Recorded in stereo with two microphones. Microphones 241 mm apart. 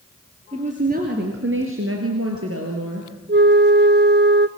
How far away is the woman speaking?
About 2.5 m.